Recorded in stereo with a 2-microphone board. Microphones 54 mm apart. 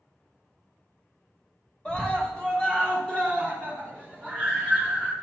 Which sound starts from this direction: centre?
A scream, at 1.9 s.